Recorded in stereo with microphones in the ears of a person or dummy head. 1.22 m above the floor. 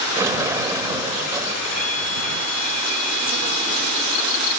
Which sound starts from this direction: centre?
A sliding door, at 0.2 s.